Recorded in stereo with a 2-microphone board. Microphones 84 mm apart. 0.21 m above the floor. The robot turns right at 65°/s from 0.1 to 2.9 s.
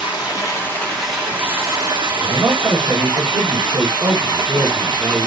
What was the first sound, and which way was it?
Running water, 115° left.